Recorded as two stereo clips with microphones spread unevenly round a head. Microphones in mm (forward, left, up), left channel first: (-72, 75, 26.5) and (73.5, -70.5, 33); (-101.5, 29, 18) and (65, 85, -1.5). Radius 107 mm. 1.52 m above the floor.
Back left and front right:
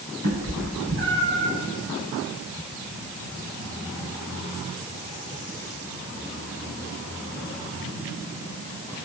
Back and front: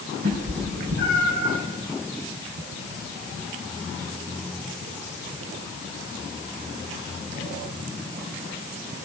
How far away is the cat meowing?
About 5.5 m.